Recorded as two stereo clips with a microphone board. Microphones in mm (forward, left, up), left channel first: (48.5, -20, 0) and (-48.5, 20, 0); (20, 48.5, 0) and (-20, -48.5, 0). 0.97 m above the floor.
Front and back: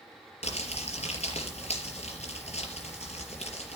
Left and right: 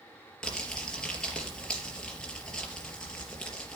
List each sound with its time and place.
0.4 s crumpling: 15° right, 4.5 m